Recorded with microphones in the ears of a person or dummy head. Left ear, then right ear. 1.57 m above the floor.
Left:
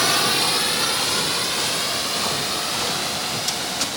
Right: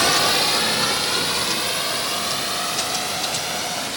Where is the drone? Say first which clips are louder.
Right 1 dB; 10° right (ahead or behind); by 4.0 s 20° right (ahead or behind).